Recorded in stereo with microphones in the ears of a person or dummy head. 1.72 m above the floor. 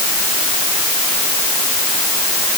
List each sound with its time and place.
Only background noise.